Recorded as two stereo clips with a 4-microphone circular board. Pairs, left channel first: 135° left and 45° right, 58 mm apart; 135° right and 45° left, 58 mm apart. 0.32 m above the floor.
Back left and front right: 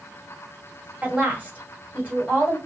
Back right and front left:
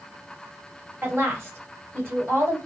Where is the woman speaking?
10° left, 1.7 m.